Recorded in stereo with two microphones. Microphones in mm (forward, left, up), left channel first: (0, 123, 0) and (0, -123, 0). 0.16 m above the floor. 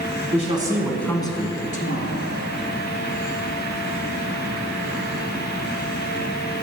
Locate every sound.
0.3 s a man speaking: 30° right (ahead or behind), 1.1 m; by 2.3 s 40° left (ahead or behind), 1.9 m